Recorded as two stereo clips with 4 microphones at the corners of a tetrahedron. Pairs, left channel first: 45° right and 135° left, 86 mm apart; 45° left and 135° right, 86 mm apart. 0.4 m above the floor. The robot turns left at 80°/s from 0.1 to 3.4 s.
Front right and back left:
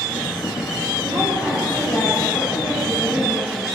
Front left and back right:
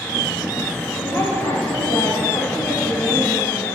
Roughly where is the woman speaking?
Left.